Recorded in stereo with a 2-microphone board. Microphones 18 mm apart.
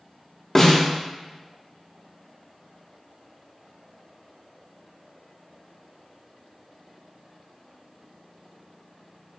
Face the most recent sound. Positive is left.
turn(degrees=20)  # may be behind; listen again after turning